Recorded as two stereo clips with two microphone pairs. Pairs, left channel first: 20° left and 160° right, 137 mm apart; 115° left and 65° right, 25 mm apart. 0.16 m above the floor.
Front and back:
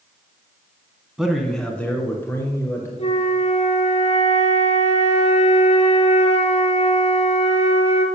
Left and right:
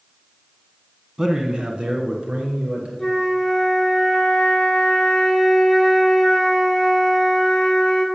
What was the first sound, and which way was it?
A man speaking, 85° right.